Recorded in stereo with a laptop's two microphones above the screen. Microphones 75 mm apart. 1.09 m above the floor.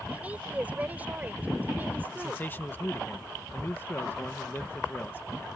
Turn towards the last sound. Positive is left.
turn(degrees=25)  # may be behind; listen again after turning